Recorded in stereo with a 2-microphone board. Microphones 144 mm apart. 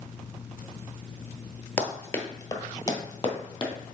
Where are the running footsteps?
10° left (ahead or behind), 1.2 m; by 3.7 s 30° left (ahead or behind), 2.0 m.